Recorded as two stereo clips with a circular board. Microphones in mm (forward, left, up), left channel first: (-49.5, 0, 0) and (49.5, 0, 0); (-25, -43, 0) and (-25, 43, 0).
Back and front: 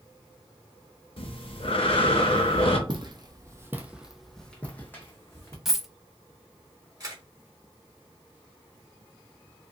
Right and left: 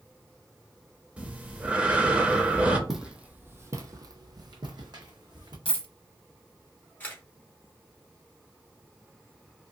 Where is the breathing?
165° left, 0.7 m.